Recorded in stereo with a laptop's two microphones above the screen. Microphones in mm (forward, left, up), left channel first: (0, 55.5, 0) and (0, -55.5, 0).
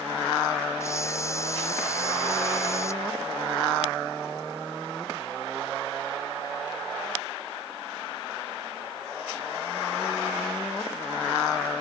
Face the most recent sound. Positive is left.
turn(degrees=25)  # may be behind; listen again after turning